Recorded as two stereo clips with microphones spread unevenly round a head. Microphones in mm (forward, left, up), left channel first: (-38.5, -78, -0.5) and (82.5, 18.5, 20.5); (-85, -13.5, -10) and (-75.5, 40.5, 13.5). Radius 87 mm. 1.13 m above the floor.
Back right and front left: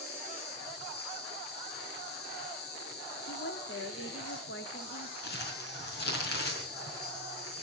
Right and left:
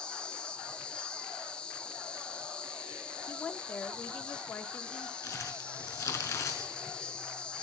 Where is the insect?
Straight behind, 4 m.